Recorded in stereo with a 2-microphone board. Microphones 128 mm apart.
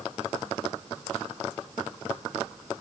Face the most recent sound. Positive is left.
No sound to turn to.